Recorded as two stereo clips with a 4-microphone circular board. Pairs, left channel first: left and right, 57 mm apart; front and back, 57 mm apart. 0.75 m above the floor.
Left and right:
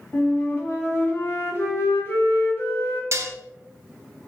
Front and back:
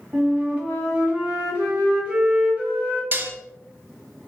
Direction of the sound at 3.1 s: 130° right.